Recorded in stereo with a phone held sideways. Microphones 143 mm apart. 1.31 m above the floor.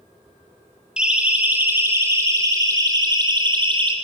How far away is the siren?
About 3.5 m.